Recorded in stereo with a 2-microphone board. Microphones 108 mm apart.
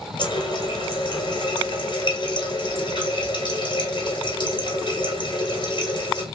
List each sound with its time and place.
0.2 s a running tap: 55° left (ahead or behind), 1.2 m